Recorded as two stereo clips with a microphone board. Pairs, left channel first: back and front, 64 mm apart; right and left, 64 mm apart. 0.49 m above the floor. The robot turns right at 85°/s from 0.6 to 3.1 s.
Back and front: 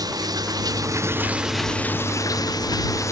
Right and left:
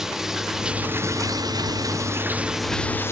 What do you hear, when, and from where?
0.0 s running water: 5° left; by 3.1 s 140° right